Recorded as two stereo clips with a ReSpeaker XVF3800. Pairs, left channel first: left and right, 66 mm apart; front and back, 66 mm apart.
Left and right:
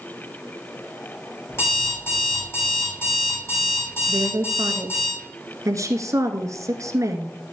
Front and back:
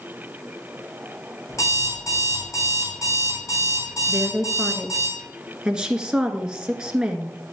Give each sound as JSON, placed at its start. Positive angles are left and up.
{"t": 1.5, "sound": "an alarm clock", "azimuth_deg": 40, "distance_m": 5.0}
{"t": 4.1, "sound": "a woman speaking", "azimuth_deg": -105, "distance_m": 1.8}